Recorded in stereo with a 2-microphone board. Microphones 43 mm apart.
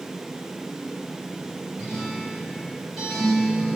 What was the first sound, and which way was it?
A guitar, 5° right (ahead or behind).